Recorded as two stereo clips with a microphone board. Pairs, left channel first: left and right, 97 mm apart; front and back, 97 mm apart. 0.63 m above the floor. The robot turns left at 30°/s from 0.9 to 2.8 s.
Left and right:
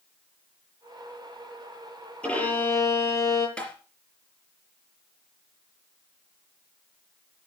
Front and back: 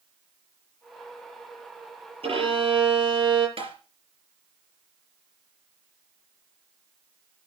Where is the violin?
170° left, 8 m; by 3.5 s 150° left, 8 m.